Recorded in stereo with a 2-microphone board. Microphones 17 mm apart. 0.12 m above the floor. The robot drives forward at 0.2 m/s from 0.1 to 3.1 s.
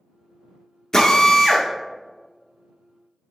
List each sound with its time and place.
0.9 s a drill: 30° left (ahead or behind), 0.8 m